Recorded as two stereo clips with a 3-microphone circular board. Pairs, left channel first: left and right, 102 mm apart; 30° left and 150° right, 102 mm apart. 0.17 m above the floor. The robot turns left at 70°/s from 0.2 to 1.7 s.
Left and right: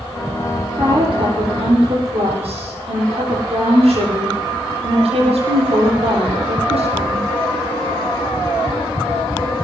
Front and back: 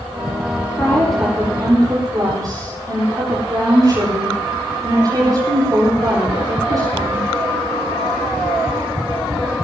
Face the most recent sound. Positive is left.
turn(degrees=-100)